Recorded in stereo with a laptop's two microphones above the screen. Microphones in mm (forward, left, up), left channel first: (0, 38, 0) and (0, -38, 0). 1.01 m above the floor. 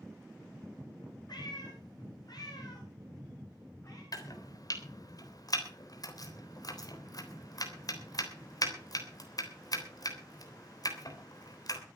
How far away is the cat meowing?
About 5.5 m.